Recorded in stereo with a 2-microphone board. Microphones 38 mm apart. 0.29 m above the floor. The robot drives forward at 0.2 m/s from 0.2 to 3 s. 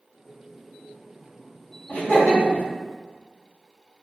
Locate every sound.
1.9 s laughter: 30° left (ahead or behind), 2.0 m; by 2.6 s 25° left (ahead or behind), 2 m